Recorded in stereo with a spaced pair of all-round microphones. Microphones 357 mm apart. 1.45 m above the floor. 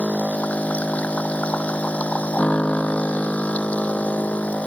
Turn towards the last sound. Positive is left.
turn(degrees=5)  # may be behind; listen again after turning